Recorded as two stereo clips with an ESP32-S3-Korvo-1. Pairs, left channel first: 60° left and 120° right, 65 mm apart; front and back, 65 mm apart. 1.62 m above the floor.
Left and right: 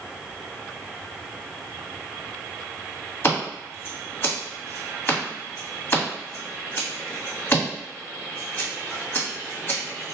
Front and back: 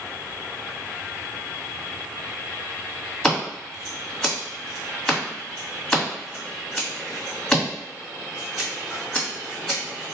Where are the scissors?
70° left, 1.6 m.